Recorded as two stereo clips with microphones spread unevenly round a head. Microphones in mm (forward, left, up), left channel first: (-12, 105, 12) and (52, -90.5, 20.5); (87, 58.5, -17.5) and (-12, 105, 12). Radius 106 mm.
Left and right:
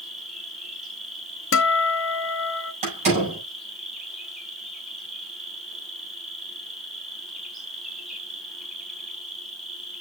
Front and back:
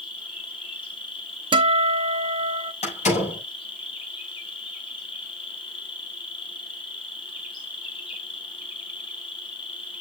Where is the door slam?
15° right, 6.5 m.